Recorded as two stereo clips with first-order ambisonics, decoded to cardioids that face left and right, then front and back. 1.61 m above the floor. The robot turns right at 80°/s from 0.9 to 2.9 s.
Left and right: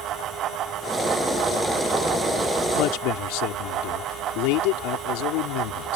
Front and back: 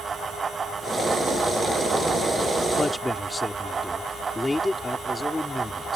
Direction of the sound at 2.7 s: 70° left.